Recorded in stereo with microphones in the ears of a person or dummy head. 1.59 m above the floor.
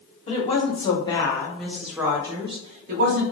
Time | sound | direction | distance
0.3 | a woman speaking | 40° left (ahead or behind) | 1.3 m